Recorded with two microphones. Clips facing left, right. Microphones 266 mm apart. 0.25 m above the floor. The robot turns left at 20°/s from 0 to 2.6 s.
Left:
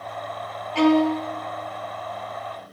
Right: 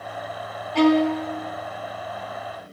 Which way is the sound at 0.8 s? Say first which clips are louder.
Even; 50° right (ahead or behind).